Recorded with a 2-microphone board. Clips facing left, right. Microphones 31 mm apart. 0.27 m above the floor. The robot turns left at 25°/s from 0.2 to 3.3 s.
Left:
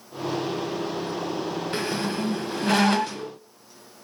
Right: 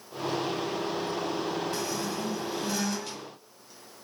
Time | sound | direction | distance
1.7 | a squeak | 45° left (ahead or behind) | 0.6 m